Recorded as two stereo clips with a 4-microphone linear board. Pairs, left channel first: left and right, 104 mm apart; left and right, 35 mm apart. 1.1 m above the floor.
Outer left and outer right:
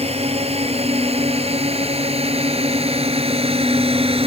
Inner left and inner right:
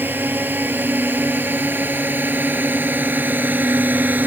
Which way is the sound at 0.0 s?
75° right (ahead or behind).